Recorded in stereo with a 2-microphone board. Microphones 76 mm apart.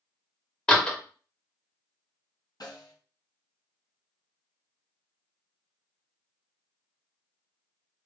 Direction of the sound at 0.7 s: 15° left (ahead or behind).